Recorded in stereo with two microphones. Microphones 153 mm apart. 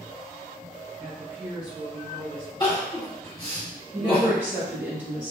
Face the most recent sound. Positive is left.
turn(degrees=-15)  # may be behind; listen again after turning